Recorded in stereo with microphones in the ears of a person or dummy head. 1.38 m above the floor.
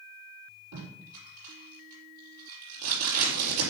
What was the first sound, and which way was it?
Tape being pulled, 70° right (ahead or behind).